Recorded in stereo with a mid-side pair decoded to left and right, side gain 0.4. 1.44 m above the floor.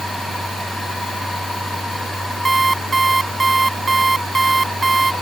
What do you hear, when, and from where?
0.0 s a machine running: 5° left
2.5 s an alarm clock: 25° right